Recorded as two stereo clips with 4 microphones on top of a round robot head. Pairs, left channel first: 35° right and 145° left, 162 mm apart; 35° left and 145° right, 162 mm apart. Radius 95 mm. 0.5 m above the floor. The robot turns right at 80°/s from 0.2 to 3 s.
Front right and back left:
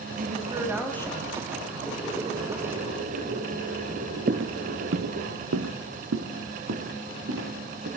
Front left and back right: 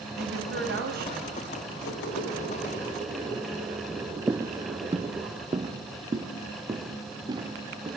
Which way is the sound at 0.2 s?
175° right.